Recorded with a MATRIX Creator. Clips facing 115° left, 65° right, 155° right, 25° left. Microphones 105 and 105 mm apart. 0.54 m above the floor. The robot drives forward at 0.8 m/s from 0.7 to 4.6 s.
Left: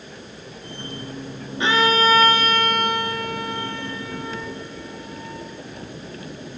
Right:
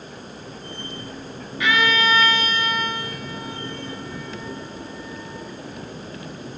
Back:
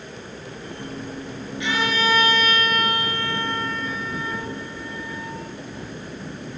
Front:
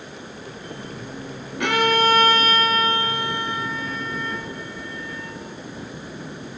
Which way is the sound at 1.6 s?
50° left.